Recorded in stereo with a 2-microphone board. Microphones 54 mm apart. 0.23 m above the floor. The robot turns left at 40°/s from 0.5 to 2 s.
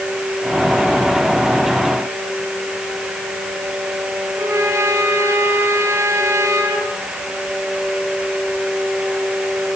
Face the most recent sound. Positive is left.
turn(degrees=-70)  # may be behind; listen again after turning